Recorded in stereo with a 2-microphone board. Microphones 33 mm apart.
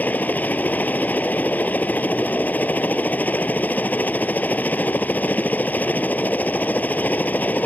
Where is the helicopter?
60° left (ahead or behind).